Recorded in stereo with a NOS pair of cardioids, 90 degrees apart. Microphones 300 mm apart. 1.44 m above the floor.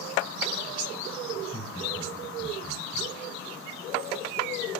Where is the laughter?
5° left, 7 m.